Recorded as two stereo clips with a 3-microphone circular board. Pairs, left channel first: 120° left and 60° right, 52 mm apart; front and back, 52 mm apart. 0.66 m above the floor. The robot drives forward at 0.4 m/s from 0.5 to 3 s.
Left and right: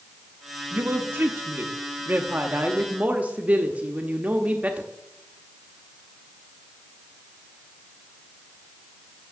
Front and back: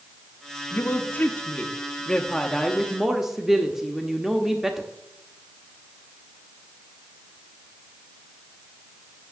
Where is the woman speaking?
30° right, 1.1 m; by 4.9 s 100° right, 0.8 m.